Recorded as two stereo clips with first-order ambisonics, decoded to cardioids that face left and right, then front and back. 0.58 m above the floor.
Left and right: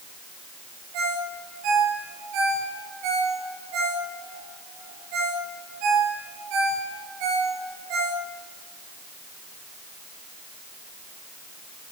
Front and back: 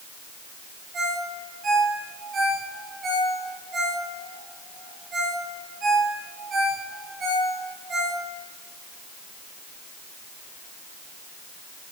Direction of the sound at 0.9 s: 115° right.